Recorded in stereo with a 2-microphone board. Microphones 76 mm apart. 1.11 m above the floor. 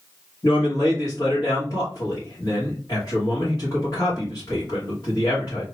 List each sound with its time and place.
0.4 s a man speaking: 60° left (ahead or behind), 1.5 m